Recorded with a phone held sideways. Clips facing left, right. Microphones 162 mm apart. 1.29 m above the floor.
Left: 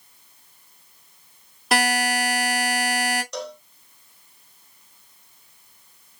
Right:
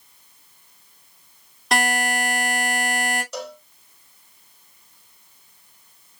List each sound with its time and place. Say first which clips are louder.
1.7 s a buzzer: left 1 dB; 5° left (ahead or behind), 2 m
3.3 s a cowbell: even; 5° right (ahead or behind), 0.8 m